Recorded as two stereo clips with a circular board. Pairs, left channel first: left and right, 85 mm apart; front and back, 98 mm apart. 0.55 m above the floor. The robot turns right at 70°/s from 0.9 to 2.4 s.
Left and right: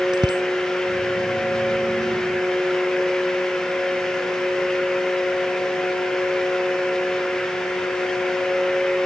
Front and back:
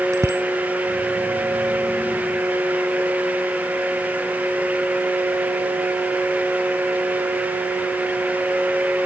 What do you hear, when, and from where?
0.1 s a bicycle bell: 120° right